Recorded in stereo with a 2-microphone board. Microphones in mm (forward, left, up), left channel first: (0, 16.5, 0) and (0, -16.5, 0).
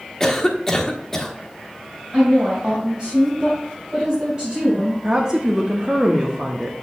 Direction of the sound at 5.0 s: 20° right (ahead or behind).